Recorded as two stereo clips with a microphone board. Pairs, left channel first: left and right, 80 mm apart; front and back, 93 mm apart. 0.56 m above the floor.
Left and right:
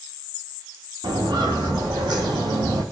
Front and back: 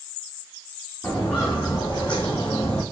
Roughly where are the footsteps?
Right.